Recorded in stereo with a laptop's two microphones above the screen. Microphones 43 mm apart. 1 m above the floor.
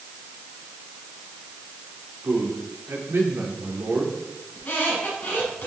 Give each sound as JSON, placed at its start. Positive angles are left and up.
{"t": 2.2, "sound": "a man speaking", "side_deg": -75, "distance_m": 3.5}
{"t": 4.5, "sound": "a squeak", "side_deg": 40, "distance_m": 6.0}